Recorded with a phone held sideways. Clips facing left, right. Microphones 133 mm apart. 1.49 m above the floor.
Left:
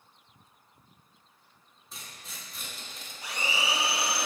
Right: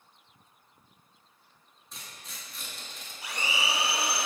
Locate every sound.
1.9 s tearing paper: centre (ahead or behind), 1.4 m
3.2 s a blender: 5° right (ahead or behind), 0.8 m